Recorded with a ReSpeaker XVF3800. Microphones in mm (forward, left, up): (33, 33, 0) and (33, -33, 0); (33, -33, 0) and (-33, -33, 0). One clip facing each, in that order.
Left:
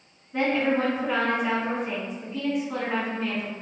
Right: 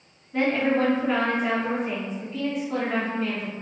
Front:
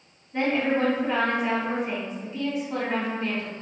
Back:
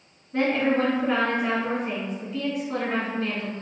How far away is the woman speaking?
About 1.5 m.